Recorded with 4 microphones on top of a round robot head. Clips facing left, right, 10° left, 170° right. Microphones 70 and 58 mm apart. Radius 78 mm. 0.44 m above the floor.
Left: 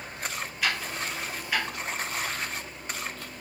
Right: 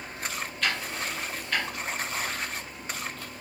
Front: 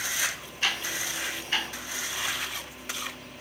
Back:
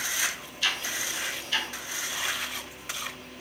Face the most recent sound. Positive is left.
turn(degrees=15)